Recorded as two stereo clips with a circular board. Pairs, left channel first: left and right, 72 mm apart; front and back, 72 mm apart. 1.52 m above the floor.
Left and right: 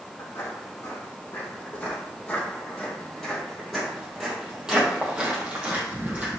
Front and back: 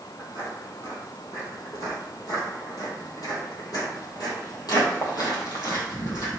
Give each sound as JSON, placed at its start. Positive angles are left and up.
{"t": 0.2, "sound": "footsteps", "azimuth_deg": 40, "distance_m": 3.5}